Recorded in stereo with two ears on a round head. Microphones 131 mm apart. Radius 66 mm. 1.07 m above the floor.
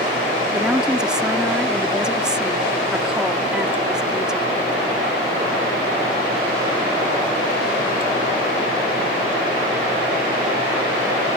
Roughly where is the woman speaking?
Centre.